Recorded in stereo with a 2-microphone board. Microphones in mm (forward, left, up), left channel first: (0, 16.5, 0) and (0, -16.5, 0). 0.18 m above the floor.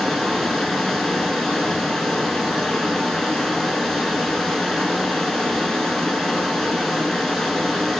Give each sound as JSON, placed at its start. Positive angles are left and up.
{"t": 0.0, "sound": "running water", "side_deg": 15, "distance_m": 0.8}